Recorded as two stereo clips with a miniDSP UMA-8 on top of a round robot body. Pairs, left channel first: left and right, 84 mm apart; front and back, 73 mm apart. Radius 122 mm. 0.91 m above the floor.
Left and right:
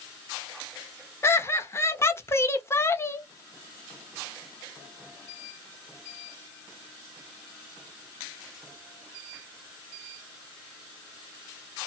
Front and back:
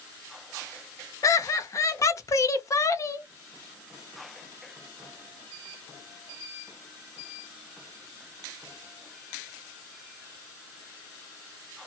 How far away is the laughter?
About 0.9 m.